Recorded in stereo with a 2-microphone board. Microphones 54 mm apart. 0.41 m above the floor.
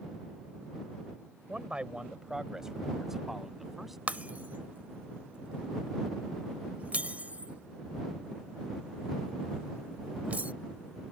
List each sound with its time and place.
1.5 s a man speaking: 25° right (ahead or behind); by 4.0 s 5° right (ahead or behind)
4.1 s breaking glass: 30° right (ahead or behind)